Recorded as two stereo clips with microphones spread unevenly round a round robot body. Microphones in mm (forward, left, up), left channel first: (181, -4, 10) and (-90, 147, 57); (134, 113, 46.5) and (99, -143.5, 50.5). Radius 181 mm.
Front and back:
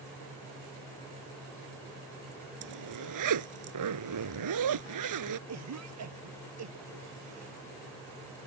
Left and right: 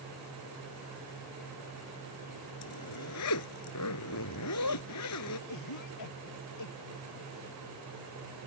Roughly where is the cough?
Behind left.